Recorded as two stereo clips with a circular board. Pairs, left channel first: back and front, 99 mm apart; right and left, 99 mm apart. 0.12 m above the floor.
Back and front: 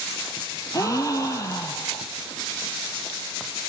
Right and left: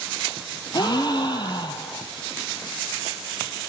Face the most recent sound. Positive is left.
turn(degrees=-125)